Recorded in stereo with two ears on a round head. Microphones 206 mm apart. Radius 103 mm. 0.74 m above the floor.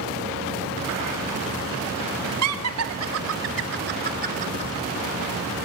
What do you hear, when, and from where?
2.4 s laughter: 70° right (ahead or behind), 3 m; by 4.7 s 30° right (ahead or behind), 3.5 m